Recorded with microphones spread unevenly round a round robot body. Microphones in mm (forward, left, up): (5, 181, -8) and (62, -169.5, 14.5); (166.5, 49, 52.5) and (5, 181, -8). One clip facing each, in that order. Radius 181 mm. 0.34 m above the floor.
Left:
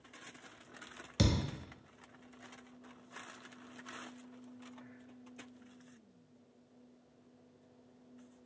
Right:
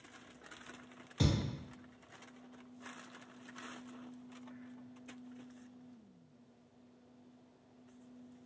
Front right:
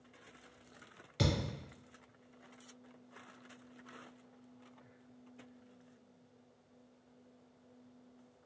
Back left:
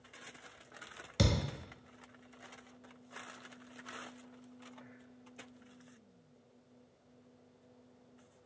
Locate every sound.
1.2 s a thud: 130° left, 0.7 m